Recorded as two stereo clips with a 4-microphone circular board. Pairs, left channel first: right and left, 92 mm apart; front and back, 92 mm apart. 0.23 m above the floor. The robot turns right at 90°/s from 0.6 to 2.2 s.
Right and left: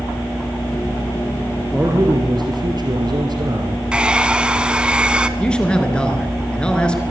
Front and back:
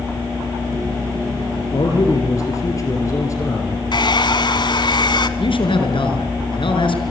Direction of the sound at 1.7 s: 10° left.